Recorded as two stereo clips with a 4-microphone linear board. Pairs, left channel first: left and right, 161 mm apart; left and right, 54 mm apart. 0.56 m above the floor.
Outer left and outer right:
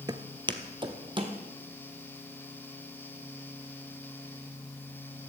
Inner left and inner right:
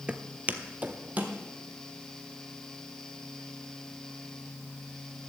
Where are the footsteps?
25° right (ahead or behind), 0.7 m; by 1.4 s 30° right (ahead or behind), 1.8 m.